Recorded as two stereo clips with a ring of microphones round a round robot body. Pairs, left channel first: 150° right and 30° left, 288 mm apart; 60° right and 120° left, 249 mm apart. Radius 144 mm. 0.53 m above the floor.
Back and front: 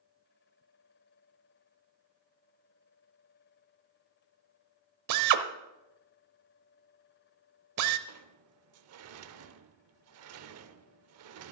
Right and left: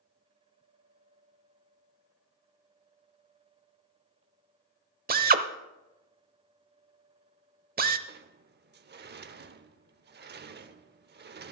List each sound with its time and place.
5.1 s a drill: 65° left, 0.9 m
8.1 s a sliding door: 70° left, 0.7 m